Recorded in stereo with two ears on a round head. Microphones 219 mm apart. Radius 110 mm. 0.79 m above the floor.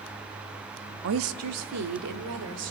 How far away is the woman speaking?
About 1.1 m.